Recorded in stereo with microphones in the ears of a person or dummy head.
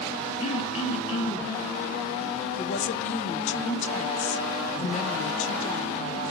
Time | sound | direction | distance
0.4 | throat clearing | 40° left (ahead or behind) | 0.9 m
2.6 | a woman speaking | 40° left (ahead or behind) | 0.5 m